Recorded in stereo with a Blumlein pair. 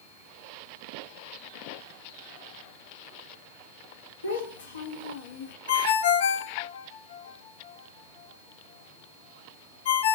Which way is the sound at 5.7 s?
60° left.